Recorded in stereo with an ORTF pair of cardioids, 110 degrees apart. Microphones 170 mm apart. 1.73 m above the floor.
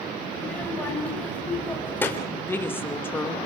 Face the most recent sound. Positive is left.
turn(degrees=15)